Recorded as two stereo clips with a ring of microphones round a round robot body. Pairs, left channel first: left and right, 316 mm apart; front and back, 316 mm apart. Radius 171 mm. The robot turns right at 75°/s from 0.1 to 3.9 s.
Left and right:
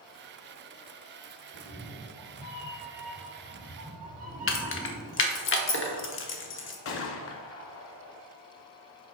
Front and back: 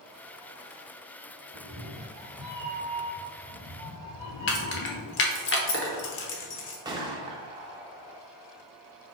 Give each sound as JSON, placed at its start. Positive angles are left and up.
{"t": 1.5, "sound": "a cat meowing", "azimuth_deg": 155, "distance_m": 2.5}
{"t": 4.5, "sound": "keys jangling", "azimuth_deg": 50, "distance_m": 1.0}
{"t": 6.8, "sound": "a gunshot", "azimuth_deg": 110, "distance_m": 0.6}